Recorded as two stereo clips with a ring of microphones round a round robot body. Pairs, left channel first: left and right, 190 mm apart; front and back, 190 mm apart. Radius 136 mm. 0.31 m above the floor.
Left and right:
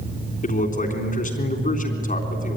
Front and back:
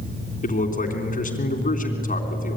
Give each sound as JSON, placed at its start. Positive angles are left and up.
{"t": 0.4, "sound": "a man speaking", "azimuth_deg": 45, "distance_m": 3.5}